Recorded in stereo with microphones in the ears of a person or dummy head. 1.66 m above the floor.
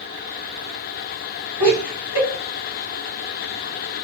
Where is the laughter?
65° left (ahead or behind), 1.7 m.